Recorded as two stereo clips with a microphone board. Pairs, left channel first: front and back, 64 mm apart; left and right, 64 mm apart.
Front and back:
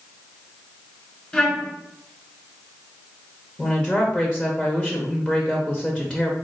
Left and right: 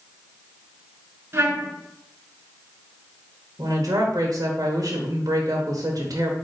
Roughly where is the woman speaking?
Right.